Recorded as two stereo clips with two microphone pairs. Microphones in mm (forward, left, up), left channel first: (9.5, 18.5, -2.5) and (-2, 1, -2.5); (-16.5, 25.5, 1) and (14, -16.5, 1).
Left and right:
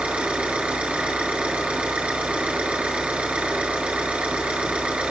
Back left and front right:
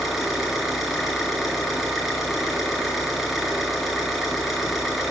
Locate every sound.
0.0 s an engine running: 140° right, 5 m